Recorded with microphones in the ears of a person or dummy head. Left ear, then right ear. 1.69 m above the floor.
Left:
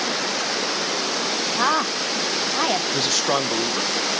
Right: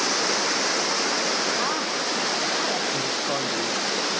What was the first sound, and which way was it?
A woman speaking, 35° left (ahead or behind).